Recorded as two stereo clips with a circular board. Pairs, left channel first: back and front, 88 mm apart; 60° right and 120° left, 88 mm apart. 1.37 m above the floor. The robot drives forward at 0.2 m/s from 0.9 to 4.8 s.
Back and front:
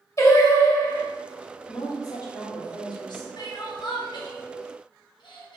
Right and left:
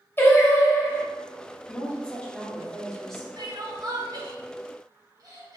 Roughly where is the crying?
Behind left.